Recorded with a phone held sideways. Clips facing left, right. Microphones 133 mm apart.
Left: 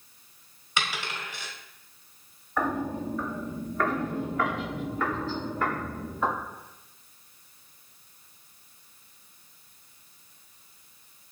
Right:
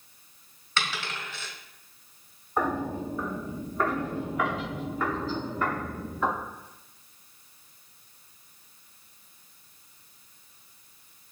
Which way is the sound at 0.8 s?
15° left (ahead or behind).